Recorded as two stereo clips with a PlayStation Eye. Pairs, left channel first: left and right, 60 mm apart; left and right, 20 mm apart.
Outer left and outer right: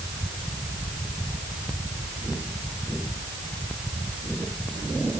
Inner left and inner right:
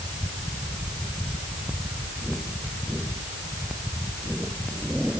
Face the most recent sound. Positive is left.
No sound to turn to.